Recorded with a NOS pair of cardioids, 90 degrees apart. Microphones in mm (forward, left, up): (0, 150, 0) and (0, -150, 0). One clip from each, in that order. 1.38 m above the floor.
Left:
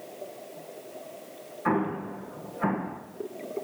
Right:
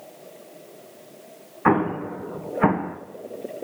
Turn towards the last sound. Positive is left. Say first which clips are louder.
# right 7 dB
turn(degrees=-50)